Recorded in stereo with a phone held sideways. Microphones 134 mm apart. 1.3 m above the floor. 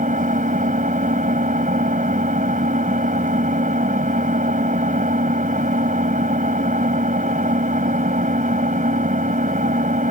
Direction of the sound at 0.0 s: 75° right (ahead or behind).